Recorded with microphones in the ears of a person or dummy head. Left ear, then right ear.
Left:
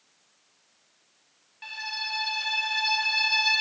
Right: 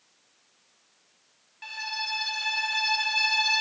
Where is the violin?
Centre (ahead or behind), 1.2 m.